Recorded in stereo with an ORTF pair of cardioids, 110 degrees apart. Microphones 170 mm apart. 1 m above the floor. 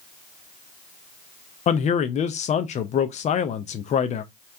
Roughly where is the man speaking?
Ahead left.